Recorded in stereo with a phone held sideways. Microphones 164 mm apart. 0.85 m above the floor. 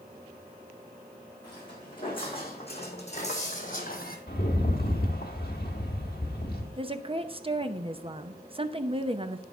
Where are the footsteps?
25° left (ahead or behind), 4 m; by 4.2 s 60° left (ahead or behind), 2 m.